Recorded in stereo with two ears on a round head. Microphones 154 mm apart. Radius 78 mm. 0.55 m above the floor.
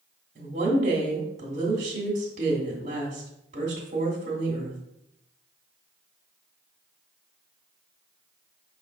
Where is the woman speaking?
35° right (ahead or behind), 1.3 m.